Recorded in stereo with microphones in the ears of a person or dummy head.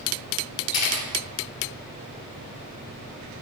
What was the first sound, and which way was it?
A camera shutter, 90° left.